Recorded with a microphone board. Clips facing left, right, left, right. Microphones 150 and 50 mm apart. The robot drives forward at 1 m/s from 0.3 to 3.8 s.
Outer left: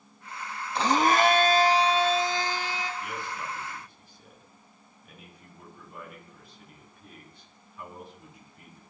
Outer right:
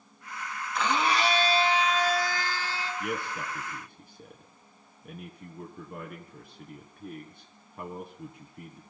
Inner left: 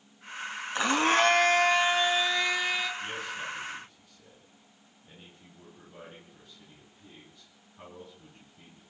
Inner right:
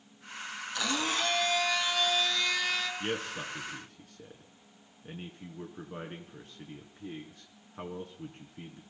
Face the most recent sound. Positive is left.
turn(degrees=-50)  # may be behind; listen again after turning